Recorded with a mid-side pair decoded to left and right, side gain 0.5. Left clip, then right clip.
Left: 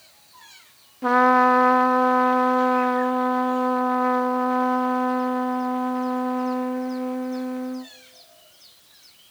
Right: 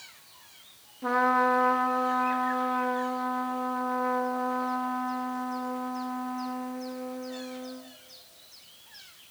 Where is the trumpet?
45° left, 0.9 m.